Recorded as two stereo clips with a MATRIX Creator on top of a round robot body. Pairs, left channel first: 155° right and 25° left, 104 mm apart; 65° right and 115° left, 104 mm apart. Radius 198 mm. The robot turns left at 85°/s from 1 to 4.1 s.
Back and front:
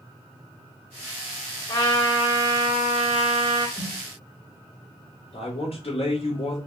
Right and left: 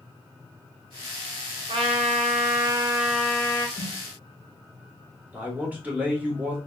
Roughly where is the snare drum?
Right.